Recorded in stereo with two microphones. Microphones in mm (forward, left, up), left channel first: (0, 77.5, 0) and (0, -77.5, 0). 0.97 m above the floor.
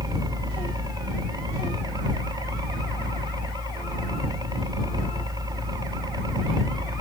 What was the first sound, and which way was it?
A helicopter, 25° right (ahead or behind).